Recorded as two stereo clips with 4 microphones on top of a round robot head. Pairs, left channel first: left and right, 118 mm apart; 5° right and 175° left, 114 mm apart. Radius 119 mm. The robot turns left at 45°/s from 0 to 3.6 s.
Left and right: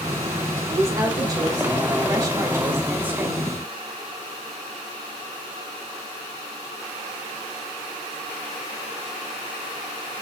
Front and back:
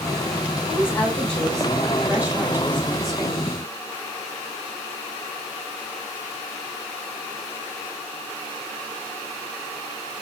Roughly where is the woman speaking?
Ahead right.